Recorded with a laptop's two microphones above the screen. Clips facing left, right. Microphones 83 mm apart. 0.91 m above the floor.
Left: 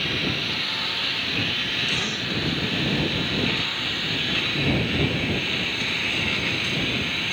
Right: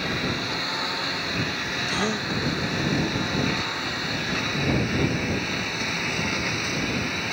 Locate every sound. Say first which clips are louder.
0.0 s a lawn mower: right 1 dB; 20° right (ahead or behind); by 7.3 s 15° right (ahead or behind)
1.9 s a gasp: right 3 dB; 35° right (ahead or behind)